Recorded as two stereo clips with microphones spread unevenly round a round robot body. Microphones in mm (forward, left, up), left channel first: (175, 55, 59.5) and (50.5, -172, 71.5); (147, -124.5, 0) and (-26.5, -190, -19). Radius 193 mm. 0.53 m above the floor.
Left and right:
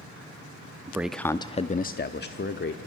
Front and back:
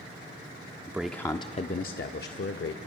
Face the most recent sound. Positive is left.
turn(degrees=25)